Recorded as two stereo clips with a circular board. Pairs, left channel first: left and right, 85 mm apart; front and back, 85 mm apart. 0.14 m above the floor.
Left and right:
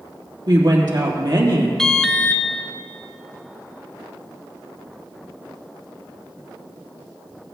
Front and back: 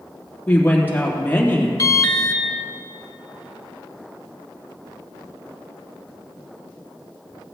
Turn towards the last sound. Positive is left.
turn(degrees=10)